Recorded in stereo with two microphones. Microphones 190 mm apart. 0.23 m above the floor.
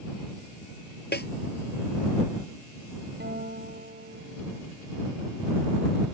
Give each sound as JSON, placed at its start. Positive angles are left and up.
{"t": 1.1, "sound": "a snare drum", "side_deg": 60}
{"t": 3.2, "sound": "a guitar", "side_deg": -60}